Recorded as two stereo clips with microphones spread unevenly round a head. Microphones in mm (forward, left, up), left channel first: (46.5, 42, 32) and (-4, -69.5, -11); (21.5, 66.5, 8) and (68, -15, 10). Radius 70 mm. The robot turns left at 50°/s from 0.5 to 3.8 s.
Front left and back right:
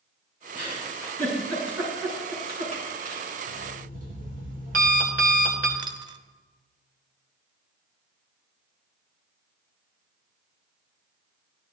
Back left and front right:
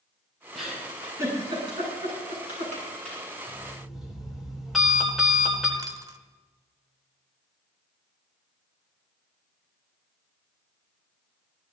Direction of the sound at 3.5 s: 135° right.